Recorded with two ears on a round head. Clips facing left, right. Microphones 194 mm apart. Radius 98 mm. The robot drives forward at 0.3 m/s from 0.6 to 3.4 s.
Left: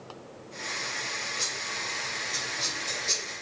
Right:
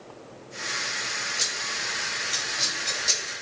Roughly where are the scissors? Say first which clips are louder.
Right 1 dB; right.